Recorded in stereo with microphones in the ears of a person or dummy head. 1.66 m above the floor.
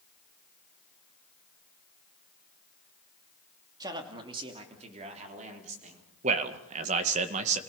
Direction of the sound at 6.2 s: 35° right (ahead or behind).